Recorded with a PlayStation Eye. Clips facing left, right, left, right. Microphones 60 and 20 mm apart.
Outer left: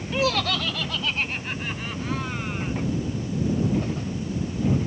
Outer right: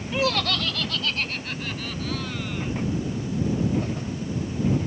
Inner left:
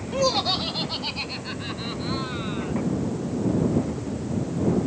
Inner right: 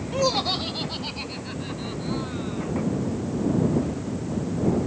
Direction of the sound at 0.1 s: 5° right (ahead or behind).